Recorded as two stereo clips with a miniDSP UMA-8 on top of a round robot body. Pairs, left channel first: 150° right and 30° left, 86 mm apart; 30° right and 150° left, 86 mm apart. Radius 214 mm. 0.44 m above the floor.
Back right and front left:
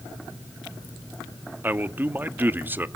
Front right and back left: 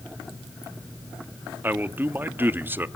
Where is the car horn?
No car horn in this recording.